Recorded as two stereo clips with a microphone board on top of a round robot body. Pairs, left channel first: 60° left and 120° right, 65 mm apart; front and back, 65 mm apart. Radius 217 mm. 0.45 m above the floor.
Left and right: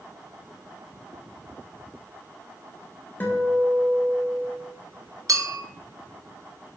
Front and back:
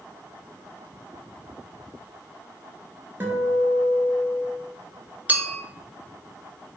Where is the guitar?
120° left, 0.5 m.